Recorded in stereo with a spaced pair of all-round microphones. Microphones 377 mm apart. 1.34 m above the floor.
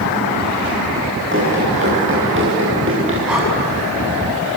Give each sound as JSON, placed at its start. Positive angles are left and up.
{"t": 1.3, "sound": "running footsteps", "side_deg": -30, "distance_m": 8.5}
{"t": 3.3, "sound": "breathing", "side_deg": -5, "distance_m": 8.5}